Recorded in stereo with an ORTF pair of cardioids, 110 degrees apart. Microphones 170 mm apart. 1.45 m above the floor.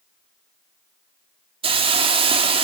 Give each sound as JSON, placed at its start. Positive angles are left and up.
{"t": 1.6, "sound": "a hiss", "azimuth_deg": -35, "distance_m": 2.5}